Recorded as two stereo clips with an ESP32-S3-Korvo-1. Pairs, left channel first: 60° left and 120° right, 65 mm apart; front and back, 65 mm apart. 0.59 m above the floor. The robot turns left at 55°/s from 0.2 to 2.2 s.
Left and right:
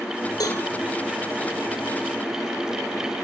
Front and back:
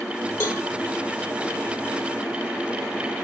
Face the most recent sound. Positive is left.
turn(degrees=-65)